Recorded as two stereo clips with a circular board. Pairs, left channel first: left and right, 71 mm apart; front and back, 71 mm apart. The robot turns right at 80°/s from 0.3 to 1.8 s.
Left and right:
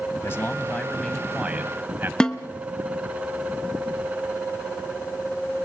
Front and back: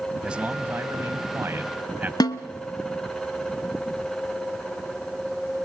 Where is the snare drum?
10° left, 0.8 m.